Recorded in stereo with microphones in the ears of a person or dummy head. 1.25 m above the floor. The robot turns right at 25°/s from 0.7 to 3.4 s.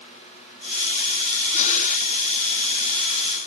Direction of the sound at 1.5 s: 35° left (ahead or behind).